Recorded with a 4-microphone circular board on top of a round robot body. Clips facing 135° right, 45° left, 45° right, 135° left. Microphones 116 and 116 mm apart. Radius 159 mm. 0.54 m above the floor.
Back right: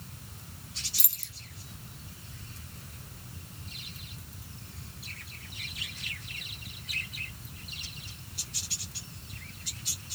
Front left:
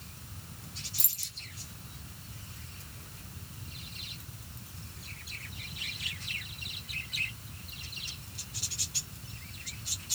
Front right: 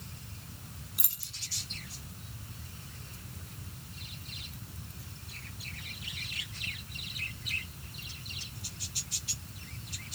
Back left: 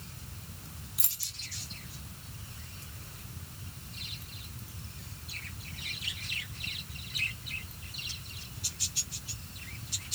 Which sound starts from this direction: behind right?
Keys jangling, at 1.0 s.